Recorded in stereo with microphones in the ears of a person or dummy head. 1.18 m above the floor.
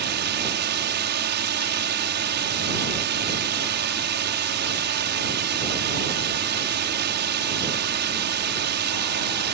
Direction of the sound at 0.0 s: 45° right (ahead or behind).